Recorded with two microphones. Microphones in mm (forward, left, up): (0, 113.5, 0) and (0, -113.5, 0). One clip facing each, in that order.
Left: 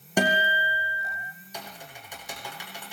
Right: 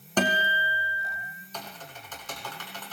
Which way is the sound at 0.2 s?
10° left (ahead or behind).